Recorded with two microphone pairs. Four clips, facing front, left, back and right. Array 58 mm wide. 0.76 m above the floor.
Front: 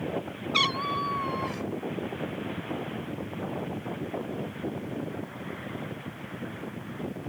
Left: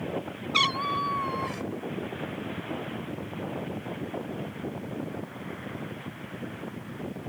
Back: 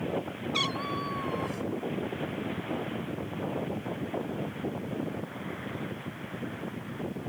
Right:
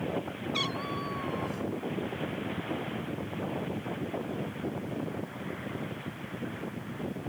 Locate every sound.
0.5 s a cat meowing: 60° left